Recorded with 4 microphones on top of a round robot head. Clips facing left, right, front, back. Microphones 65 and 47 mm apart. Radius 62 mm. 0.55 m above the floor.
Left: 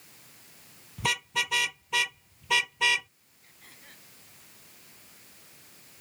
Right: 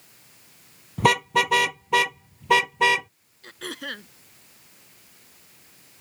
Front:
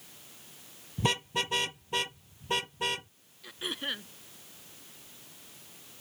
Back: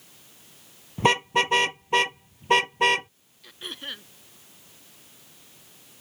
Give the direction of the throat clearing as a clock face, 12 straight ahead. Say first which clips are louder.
Right 20 dB, front 2 dB; 3 o'clock.